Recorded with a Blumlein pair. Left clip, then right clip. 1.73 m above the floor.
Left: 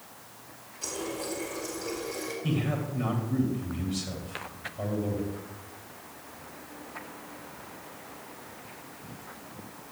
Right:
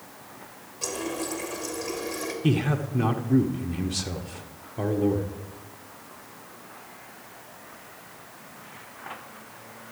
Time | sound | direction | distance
0.8 | a running tap | 70° right | 3 m
2.4 | a man speaking | 55° right | 1.8 m